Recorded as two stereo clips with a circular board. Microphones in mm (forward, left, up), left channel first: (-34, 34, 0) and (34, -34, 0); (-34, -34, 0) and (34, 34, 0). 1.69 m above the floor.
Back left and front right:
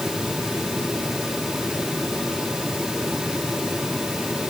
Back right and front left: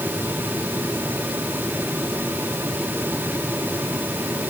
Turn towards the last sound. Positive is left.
No sound to turn to.